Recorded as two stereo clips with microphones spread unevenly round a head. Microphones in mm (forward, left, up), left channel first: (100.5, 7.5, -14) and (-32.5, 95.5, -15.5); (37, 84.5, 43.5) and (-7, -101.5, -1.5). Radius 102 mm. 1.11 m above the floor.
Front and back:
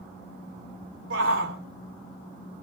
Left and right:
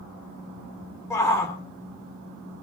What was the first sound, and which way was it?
A shout, 155° left.